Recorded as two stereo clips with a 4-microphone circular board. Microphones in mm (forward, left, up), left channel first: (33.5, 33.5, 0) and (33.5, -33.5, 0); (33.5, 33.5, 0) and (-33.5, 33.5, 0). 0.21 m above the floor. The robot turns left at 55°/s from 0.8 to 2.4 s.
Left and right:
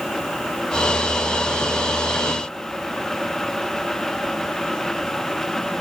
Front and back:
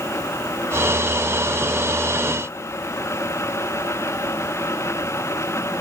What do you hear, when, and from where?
Only background noise.